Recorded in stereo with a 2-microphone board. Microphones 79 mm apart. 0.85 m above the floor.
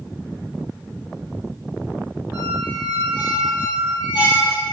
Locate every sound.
2.3 s a squeak: 65° left (ahead or behind), 3.5 m